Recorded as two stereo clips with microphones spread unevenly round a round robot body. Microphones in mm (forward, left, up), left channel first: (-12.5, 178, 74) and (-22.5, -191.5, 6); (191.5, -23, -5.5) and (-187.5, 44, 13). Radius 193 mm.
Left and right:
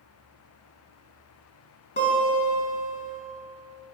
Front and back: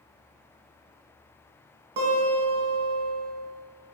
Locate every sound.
2.0 s a guitar: 155° left, 2.5 m